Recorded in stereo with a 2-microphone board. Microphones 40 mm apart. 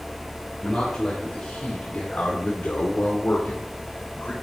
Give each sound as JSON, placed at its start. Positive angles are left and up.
{"t": 0.6, "sound": "a man speaking", "side_deg": 15, "distance_m": 2.5}